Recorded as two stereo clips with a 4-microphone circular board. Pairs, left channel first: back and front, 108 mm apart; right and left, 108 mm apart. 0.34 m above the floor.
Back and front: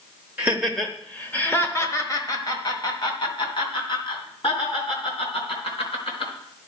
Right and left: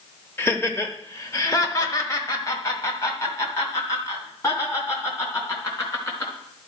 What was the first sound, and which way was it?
Laughter, 55° right.